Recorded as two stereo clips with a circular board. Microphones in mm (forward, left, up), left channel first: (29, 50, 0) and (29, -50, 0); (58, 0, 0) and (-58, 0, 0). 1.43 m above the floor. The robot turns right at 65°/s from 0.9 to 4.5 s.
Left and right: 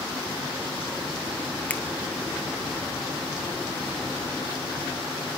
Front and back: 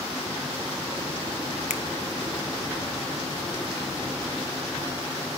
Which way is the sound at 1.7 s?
15° left.